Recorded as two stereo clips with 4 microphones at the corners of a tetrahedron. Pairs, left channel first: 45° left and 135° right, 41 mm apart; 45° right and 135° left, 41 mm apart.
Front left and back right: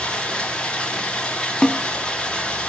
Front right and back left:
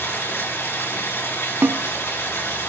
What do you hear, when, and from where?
0.0 s running water: 25° right, 7.5 m
1.6 s a snare drum: 115° left, 1.2 m